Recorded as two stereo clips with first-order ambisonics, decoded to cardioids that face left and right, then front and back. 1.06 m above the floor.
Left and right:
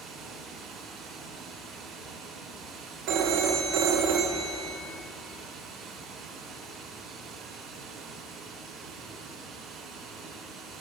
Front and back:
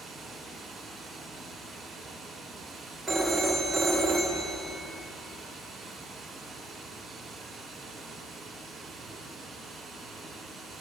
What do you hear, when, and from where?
0.0 s running water: 120° right, 0.8 m
3.1 s a phone ringing: 95° right, 0.6 m